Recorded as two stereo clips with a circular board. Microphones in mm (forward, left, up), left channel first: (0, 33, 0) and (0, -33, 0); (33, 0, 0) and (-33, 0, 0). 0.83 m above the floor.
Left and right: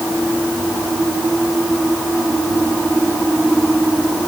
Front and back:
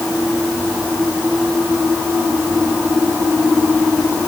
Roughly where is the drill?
No drill in this recording.